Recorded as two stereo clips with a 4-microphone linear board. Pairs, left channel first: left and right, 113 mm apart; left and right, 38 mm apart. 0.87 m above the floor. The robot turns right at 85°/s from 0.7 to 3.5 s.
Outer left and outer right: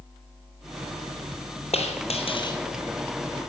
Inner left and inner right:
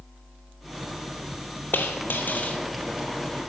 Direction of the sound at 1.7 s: 70° left.